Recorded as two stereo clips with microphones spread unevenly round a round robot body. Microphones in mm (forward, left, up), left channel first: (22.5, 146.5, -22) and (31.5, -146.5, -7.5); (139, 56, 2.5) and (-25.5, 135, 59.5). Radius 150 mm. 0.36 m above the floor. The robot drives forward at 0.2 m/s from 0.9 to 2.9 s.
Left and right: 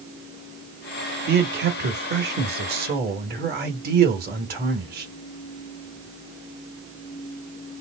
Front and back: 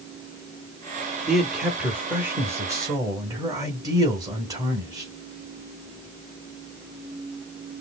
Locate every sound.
1.3 s a man speaking: 80° right, 0.9 m; by 5.1 s 120° right, 1.0 m